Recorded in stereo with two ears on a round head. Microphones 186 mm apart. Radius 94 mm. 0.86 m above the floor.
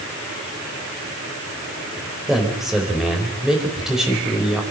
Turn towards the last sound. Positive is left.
turn(degrees=0)  # may be behind; listen again after turning